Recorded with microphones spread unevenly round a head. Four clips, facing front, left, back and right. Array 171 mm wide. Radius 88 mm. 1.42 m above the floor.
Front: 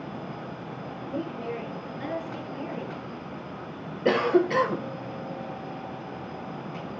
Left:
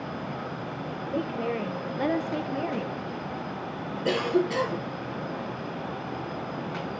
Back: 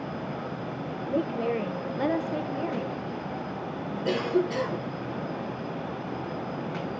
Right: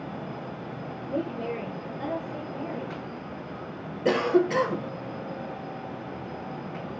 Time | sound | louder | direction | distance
1.1 | a woman speaking | left 1 dB, back 6 dB | 160° right | 1.5 m
4.0 | a cough | right 3 dB, front 4 dB | 5° right | 1.1 m